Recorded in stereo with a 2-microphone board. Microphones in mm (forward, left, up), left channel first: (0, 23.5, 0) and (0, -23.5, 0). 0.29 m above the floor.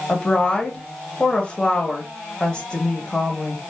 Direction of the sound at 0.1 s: 25° left (ahead or behind).